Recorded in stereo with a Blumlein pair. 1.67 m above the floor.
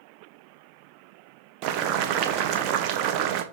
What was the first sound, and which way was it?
Boiling, 35° right.